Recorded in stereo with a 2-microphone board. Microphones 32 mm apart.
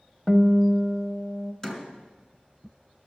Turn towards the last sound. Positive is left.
turn(degrees=20)  # may be behind; listen again after turning